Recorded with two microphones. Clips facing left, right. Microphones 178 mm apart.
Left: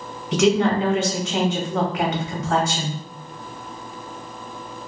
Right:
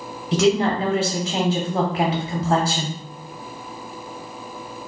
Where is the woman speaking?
30° right (ahead or behind), 0.8 m.